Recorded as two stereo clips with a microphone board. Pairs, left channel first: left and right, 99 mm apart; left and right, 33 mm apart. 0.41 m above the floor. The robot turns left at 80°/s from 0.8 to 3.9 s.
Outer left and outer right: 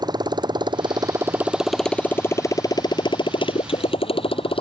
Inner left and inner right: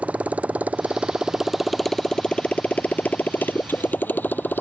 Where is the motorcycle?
50° right (ahead or behind); by 4.6 s 80° left.